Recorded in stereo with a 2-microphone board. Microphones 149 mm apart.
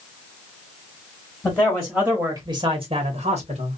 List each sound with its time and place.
1.4 s a man speaking: 10° left (ahead or behind), 1.0 m; by 3.8 s 50° right (ahead or behind), 1.4 m